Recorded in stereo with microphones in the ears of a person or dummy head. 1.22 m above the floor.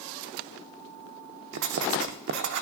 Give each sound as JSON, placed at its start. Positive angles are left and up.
{"t": 1.5, "sound": "writing", "side_deg": -65, "distance_m": 0.7}